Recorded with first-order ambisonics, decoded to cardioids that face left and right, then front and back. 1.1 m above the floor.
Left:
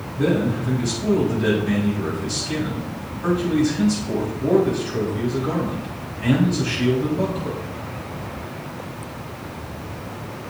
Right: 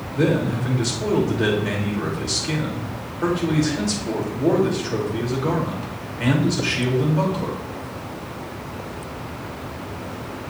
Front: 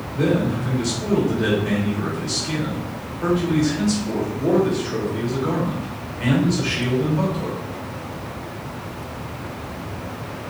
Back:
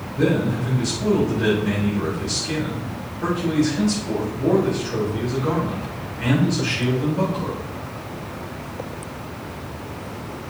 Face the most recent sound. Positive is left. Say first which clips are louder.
# even, even
turn(degrees=-85)